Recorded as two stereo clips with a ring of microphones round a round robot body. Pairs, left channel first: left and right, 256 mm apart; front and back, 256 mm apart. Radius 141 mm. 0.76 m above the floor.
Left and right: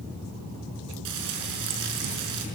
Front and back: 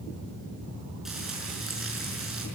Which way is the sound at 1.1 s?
90° right.